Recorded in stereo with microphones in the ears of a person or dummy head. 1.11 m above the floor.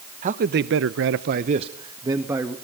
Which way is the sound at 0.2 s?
40° right (ahead or behind).